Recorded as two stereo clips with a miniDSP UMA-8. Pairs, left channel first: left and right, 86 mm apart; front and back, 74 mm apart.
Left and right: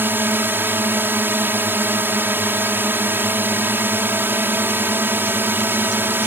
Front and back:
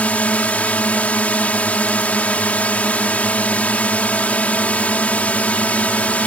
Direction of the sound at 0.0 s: 50° right.